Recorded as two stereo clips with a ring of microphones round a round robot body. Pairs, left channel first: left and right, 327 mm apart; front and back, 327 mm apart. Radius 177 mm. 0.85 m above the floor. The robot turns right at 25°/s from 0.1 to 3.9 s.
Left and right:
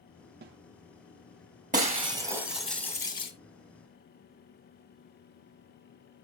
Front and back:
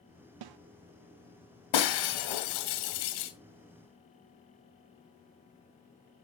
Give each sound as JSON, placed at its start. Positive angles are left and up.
{"t": 0.4, "sound": "a snare drum", "azimuth_deg": -155, "distance_m": 0.6}
{"t": 1.7, "sound": "breaking glass", "azimuth_deg": -20, "distance_m": 1.8}